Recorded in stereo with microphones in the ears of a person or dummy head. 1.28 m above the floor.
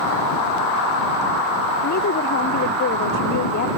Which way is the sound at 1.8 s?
45° left (ahead or behind).